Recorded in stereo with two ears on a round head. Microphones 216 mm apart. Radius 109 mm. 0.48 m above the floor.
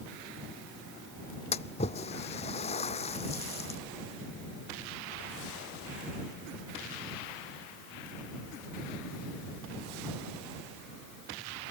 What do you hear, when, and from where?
1.5 s a splash: 25° left (ahead or behind)